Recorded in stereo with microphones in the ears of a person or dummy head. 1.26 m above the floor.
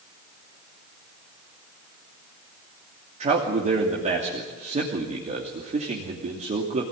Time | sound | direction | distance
3.2 | a man speaking | 25° right (ahead or behind) | 2.5 m